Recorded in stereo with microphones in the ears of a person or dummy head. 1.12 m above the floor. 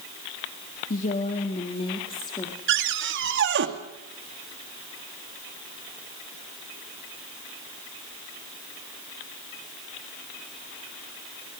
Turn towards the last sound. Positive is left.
turn(degrees=-60)  # may be behind; listen again after turning